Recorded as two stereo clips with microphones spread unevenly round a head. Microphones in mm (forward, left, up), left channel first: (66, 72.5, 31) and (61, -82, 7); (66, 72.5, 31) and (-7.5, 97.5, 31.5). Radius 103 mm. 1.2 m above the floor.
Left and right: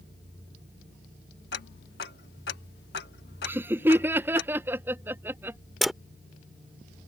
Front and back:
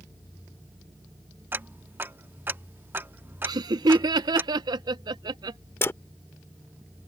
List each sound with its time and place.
1.5 s ticking: 100° left
3.4 s laughter: 165° right
5.8 s a dropped coin: 10° left